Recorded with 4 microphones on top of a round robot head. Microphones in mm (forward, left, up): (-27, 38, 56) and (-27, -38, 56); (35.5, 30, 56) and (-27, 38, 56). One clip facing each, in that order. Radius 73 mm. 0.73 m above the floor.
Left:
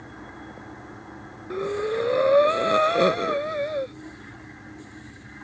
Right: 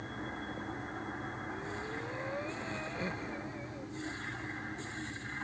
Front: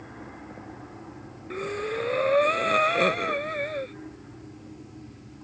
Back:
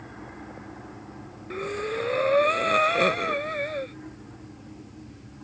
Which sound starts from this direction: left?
Breathing, at 1.5 s.